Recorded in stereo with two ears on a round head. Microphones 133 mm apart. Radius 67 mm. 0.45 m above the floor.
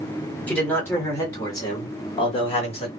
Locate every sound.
0.5 s a man speaking: 10° left (ahead or behind), 1.9 m; by 2.9 s 40° left (ahead or behind), 1.7 m